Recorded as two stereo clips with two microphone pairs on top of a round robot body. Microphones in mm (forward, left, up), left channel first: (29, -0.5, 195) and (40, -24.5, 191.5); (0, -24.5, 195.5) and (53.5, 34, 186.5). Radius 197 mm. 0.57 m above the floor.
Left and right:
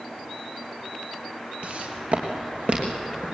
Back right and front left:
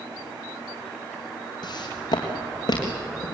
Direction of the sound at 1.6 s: 105° right.